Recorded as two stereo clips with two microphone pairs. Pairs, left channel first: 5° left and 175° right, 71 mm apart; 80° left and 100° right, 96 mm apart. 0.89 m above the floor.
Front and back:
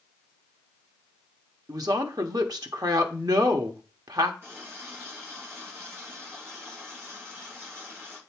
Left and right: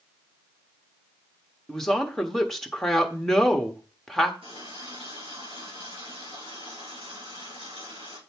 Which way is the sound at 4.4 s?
120° right.